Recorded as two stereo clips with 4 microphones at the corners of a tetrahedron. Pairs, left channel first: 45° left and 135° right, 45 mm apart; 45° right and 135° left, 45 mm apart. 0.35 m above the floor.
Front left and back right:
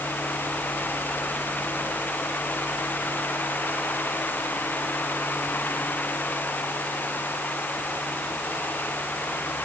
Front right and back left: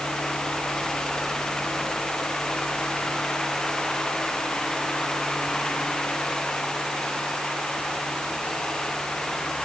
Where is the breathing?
No breathing in this recording.